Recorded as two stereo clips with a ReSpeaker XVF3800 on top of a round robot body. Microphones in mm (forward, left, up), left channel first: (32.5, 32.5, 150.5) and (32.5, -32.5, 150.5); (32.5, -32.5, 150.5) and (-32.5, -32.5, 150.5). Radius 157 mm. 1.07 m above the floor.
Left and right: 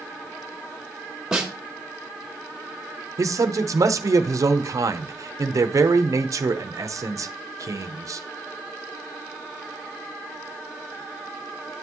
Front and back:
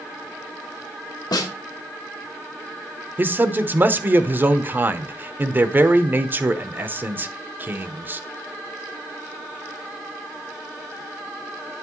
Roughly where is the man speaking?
Behind right.